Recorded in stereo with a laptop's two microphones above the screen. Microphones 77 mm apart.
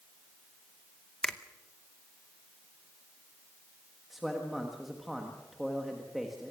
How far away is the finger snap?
About 0.8 m.